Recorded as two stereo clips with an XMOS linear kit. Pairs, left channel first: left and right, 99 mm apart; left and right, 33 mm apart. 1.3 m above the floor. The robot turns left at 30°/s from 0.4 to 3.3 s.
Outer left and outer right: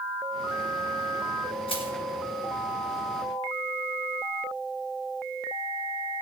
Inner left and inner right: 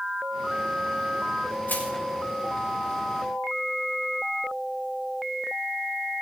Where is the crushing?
65° left (ahead or behind), 2 m; by 1.9 s 55° left (ahead or behind), 2 m.